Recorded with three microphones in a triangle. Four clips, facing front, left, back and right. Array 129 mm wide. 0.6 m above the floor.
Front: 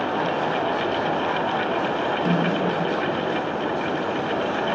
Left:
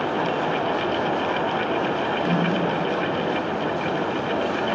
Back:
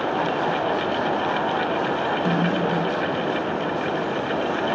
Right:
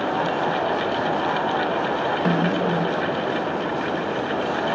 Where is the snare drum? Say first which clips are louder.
Right 2 dB, front 1 dB; 95° right, 2.5 m.